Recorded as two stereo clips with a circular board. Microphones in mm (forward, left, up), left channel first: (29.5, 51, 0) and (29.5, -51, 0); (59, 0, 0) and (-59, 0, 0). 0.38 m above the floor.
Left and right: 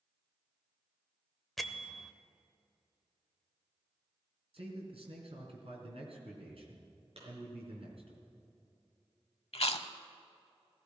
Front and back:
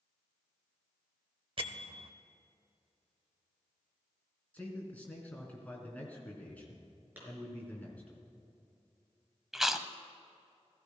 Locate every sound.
1.6 s a bell: straight behind, 0.8 m
4.5 s a man speaking: 75° right, 4 m
7.2 s a clap: 105° right, 5.5 m
9.5 s chewing: 95° left, 0.7 m